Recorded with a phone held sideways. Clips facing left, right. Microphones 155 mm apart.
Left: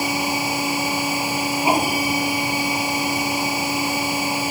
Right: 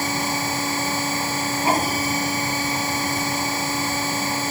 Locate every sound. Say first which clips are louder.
0.0 s a machine running: left 2 dB; 10° left (ahead or behind)